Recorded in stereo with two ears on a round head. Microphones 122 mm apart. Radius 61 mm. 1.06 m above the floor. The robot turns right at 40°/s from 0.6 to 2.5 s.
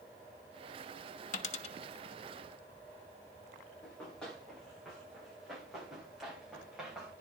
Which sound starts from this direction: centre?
Running footsteps, at 3.8 s.